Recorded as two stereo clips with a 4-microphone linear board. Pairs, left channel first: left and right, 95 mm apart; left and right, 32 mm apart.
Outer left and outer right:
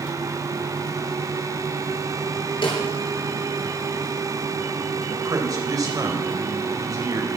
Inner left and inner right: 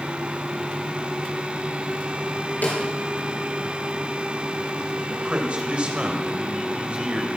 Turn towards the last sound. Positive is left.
turn(degrees=-40)  # may be behind; listen again after turning